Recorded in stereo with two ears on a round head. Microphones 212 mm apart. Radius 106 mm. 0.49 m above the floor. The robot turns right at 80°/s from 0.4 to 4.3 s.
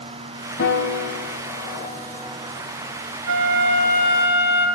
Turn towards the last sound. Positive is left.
turn(degrees=-10)